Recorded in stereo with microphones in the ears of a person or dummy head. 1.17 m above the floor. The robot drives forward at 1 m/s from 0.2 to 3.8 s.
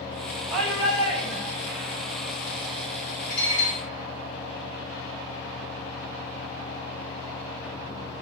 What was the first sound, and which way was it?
A shout, 20° right (ahead or behind).